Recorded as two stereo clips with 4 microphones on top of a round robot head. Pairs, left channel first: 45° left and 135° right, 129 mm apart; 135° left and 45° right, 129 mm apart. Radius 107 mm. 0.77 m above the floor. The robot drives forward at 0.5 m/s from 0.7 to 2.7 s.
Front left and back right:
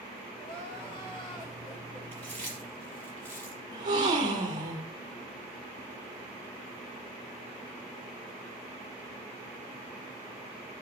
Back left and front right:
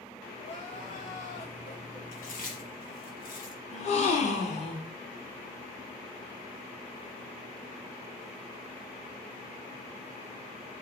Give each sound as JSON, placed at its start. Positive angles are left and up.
{"t": 0.4, "sound": "crying", "azimuth_deg": 95, "distance_m": 5.5}
{"t": 2.1, "sound": "chewing", "azimuth_deg": 120, "distance_m": 5.0}
{"t": 3.7, "sound": "a gasp", "azimuth_deg": 165, "distance_m": 1.9}